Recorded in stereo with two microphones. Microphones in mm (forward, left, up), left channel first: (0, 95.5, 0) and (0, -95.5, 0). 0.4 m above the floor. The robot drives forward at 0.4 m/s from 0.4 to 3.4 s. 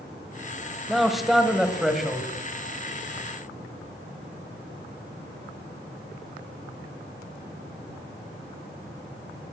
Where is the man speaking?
Centre (ahead or behind), 1.9 m.